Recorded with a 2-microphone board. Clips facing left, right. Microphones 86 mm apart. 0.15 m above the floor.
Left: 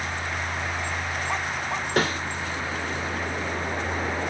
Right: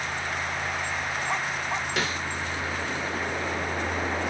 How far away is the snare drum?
About 2 m.